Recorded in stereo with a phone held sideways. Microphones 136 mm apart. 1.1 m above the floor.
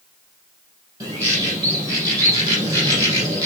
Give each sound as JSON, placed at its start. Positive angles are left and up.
{"t": 1.0, "sound": "a bird", "side_deg": -25, "distance_m": 6.0}